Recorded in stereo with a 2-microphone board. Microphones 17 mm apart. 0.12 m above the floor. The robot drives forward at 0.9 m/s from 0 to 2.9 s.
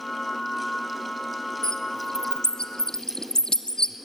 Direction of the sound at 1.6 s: 40° left (ahead or behind).